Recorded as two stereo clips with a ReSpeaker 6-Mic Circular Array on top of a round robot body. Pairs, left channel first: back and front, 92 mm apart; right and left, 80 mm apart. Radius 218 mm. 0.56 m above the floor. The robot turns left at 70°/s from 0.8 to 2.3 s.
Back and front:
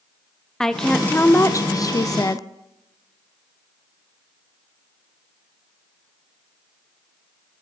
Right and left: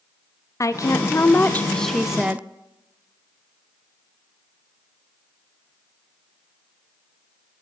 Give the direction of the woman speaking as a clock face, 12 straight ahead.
3 o'clock.